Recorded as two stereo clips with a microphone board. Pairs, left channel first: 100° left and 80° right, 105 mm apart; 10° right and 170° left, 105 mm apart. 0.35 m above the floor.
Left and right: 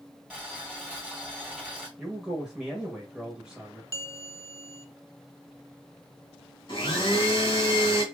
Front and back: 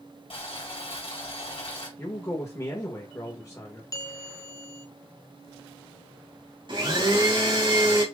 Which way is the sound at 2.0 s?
5° right.